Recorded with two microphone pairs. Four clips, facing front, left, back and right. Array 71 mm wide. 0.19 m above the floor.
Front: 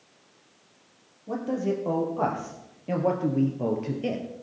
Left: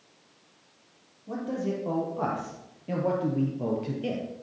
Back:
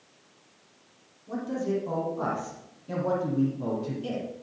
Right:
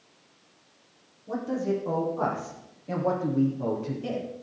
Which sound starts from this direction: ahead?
A man speaking, at 1.3 s.